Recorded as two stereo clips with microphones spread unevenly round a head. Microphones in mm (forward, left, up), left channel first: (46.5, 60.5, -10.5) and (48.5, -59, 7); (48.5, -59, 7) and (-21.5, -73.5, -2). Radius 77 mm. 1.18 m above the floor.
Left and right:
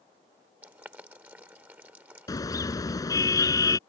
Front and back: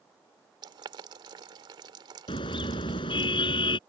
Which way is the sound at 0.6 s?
160° right.